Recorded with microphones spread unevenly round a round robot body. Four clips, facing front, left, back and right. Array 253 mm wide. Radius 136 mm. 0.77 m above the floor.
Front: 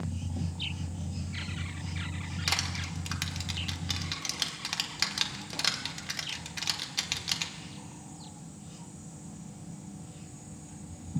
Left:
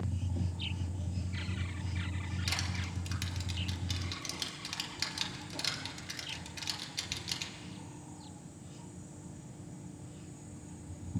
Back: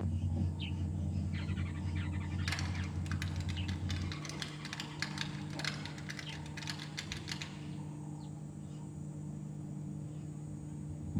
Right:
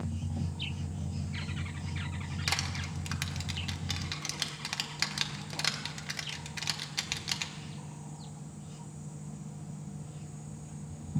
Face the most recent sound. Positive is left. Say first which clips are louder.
# right 5 dB, front 5 dB
turn(degrees=-35)